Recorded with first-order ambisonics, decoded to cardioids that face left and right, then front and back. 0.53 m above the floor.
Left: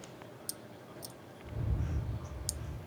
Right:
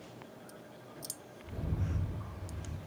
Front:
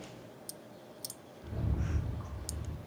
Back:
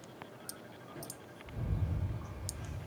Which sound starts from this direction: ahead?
A rattle, at 1.4 s.